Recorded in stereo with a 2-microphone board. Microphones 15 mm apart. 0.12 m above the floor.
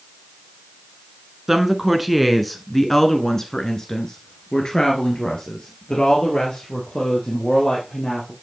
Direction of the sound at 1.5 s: 15° right (ahead or behind).